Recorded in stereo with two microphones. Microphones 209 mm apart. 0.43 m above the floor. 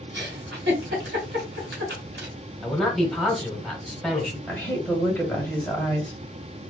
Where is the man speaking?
Centre (ahead or behind), 1.5 m.